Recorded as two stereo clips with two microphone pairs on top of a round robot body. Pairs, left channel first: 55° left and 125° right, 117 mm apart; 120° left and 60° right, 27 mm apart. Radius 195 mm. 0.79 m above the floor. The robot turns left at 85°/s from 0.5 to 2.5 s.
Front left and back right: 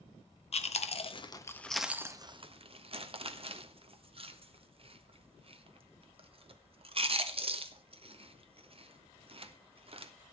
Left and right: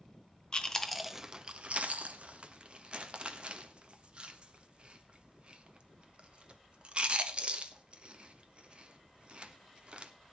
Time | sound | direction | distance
0.5 | chewing | 70° left | 1.6 m